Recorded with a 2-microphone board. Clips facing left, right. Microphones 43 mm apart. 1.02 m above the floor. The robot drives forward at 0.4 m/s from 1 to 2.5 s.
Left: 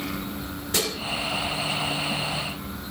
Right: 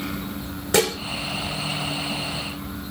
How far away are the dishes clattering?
About 2.5 m.